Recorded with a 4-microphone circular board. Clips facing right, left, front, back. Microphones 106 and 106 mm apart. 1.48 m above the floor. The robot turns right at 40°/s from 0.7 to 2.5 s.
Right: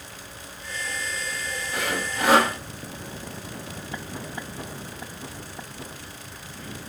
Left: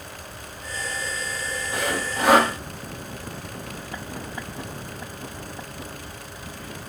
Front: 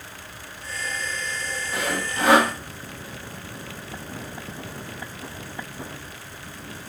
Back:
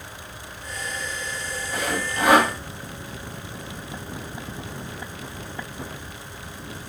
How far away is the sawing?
About 2.5 m.